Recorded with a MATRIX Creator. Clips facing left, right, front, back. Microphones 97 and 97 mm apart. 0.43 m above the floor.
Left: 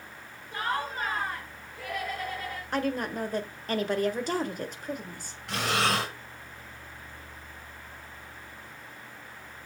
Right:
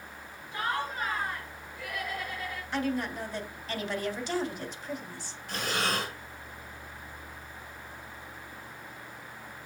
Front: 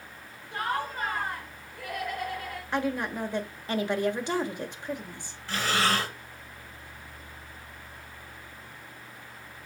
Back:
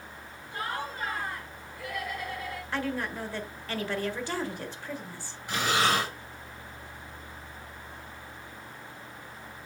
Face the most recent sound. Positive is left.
turn(degrees=105)